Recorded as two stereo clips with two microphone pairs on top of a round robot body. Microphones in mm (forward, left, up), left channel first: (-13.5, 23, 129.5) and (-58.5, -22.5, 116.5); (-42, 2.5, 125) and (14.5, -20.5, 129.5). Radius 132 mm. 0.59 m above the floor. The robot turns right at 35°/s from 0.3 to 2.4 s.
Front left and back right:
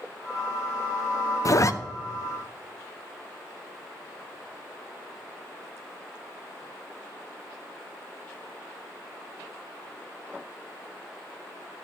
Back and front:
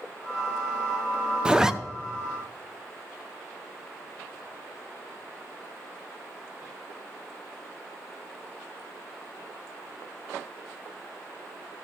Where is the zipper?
55° left, 0.6 m; by 1.7 s 65° left, 0.6 m.